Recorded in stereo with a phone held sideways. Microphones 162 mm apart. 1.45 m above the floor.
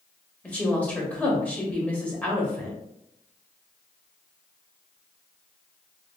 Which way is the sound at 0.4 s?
10° left (ahead or behind).